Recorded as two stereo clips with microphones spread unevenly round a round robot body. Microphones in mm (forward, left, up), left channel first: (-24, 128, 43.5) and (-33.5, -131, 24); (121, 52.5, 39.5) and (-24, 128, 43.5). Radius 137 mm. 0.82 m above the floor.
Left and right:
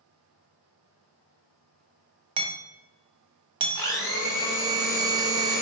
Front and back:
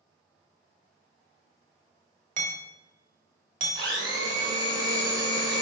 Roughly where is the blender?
Behind.